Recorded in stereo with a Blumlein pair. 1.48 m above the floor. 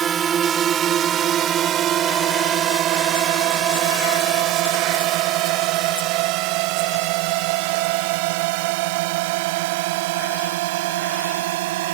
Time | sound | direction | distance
0.0 | a drone | 20° right | ?